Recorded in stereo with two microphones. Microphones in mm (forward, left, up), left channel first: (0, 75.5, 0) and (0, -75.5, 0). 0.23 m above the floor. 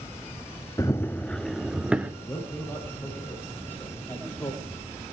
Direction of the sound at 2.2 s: 15° left (ahead or behind).